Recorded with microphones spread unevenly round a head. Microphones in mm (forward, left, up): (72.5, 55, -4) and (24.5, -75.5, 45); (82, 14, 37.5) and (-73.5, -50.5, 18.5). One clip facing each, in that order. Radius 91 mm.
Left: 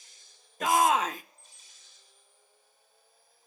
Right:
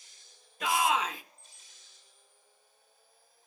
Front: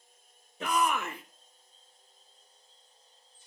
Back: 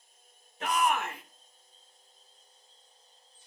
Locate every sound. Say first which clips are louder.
0.6 s a shout: left 4 dB, even; 30° left, 1.1 m